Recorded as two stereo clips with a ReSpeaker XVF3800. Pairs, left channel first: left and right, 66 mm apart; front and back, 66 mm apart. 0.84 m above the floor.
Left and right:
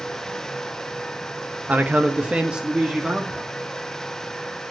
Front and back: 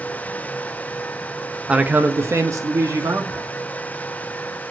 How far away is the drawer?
I don't hear a drawer.